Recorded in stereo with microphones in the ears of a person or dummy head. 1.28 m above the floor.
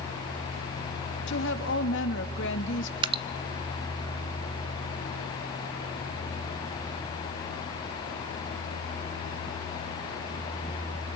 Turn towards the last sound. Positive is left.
turn(degrees=-30)  # may be behind; listen again after turning